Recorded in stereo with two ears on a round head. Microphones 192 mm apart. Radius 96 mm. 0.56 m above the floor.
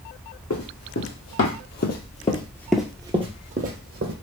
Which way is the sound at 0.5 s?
75° left (ahead or behind).